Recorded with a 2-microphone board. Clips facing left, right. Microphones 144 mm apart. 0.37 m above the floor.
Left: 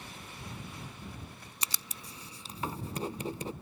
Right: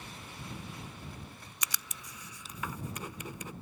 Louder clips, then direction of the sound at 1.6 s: Even; 30° left (ahead or behind).